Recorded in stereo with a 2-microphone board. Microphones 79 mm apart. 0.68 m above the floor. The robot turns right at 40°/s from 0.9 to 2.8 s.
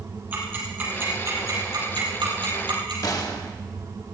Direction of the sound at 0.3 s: 25° right (ahead or behind).